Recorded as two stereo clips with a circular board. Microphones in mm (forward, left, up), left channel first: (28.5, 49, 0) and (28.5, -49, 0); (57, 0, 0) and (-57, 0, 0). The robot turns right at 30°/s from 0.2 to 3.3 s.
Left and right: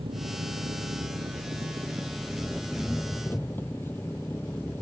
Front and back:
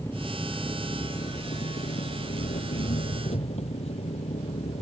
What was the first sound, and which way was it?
An engine running, 70° right.